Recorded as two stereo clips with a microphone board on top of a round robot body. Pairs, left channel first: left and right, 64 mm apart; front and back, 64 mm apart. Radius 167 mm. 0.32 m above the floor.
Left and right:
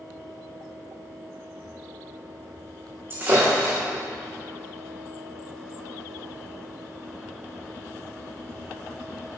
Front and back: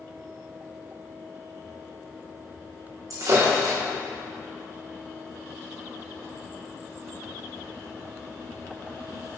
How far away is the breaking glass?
About 3 m.